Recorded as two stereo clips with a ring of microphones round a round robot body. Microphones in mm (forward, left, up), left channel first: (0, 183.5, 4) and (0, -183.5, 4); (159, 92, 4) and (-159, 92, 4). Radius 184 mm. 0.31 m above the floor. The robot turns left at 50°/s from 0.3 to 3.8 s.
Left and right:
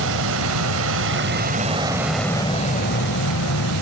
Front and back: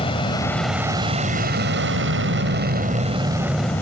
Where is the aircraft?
65° right; by 3.8 s 80° left.